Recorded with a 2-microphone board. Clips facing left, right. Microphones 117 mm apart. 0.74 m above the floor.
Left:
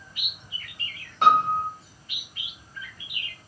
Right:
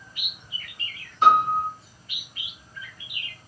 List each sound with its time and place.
1.2 s a piano: 70° left (ahead or behind), 1.9 m